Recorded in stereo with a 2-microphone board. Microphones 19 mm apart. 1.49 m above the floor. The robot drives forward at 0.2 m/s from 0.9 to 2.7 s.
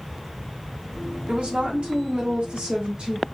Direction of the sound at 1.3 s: 70° right (ahead or behind).